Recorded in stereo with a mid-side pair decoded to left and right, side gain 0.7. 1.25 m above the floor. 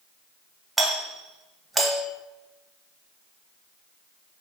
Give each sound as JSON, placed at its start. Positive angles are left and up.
{"t": 0.8, "sound": "a doorbell", "azimuth_deg": -10, "distance_m": 0.9}